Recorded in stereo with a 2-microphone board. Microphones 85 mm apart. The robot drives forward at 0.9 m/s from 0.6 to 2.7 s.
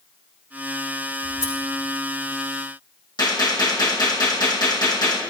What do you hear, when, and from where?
1.2 s scissors: 75° right (ahead or behind), 3.5 m
3.2 s a gunshot: 55° left (ahead or behind), 4 m